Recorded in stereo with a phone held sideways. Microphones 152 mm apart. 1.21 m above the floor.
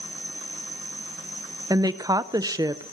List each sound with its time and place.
0.0 s an insect: 15° right (ahead or behind), 2.5 m
1.7 s a woman speaking: 25° right (ahead or behind), 0.5 m